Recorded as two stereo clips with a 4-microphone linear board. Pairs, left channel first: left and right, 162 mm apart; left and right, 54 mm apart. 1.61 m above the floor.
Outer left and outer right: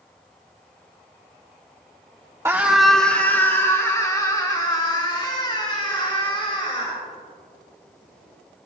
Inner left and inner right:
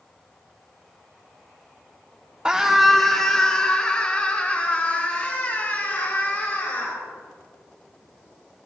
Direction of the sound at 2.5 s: 15° right (ahead or behind).